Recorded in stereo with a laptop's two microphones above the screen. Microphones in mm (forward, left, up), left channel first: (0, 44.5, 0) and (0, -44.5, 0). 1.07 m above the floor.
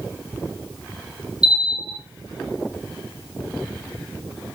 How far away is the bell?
About 1.7 m.